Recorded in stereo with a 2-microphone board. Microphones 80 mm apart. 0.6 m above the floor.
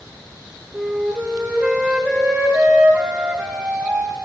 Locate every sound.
0.7 s a flute: 15° right (ahead or behind), 1.1 m